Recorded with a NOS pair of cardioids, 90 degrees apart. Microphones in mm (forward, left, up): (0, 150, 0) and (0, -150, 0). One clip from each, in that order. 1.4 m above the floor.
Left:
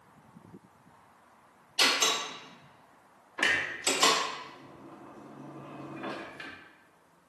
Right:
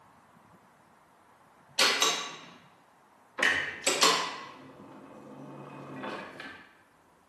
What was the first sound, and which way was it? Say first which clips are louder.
A door slam: even; 15° right.